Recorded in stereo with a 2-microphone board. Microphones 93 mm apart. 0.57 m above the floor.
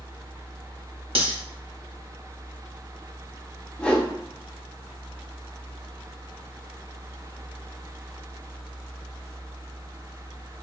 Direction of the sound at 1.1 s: 75° right (ahead or behind).